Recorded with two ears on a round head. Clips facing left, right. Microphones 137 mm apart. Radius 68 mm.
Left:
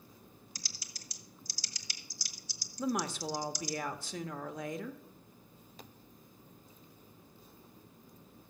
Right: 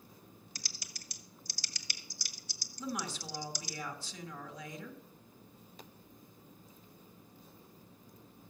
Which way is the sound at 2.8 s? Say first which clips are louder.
Left 6 dB; 45° left (ahead or behind).